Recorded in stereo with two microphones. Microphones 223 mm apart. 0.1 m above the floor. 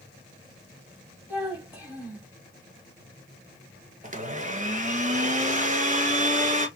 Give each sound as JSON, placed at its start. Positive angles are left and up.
{"t": 1.3, "sound": "a child speaking", "side_deg": -10, "distance_m": 2.5}
{"t": 4.0, "sound": "a blender", "side_deg": -35, "distance_m": 0.6}